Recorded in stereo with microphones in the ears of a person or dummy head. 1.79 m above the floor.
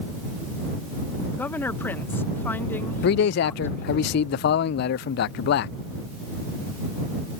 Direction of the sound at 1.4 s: 10° left (ahead or behind).